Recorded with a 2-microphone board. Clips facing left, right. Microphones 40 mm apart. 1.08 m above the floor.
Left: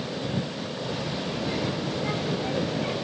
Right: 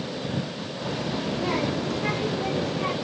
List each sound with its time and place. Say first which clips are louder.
0.8 s a child speaking: right 4 dB; 60° right (ahead or behind), 1.2 m; by 2.9 s 80° right, 1.8 m